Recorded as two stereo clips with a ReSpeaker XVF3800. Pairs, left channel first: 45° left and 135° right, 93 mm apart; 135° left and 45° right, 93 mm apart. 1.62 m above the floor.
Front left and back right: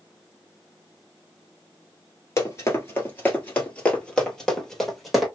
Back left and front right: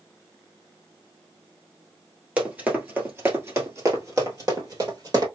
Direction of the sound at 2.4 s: 20° left.